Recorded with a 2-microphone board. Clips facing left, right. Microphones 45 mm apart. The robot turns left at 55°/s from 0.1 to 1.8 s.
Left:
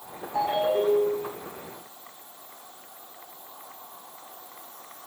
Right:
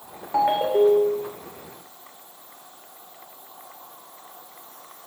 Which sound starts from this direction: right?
A ringtone, at 0.3 s.